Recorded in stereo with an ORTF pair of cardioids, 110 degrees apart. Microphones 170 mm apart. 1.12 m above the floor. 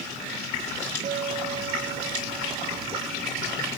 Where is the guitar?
45° right.